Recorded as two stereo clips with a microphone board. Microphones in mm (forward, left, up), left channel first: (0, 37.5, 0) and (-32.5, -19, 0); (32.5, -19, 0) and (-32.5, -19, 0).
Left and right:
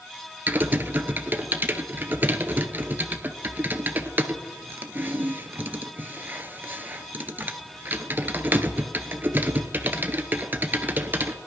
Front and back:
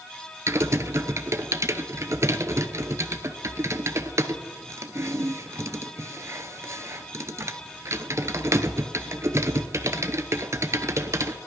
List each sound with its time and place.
0.5 s typing on a keyboard: 165° right, 0.9 m